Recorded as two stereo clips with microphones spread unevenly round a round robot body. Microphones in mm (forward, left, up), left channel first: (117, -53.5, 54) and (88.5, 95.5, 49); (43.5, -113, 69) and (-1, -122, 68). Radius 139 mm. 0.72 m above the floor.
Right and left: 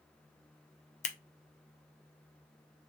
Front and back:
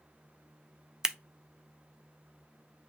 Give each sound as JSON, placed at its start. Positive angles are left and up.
{"t": 1.0, "sound": "scissors", "azimuth_deg": -95, "distance_m": 0.5}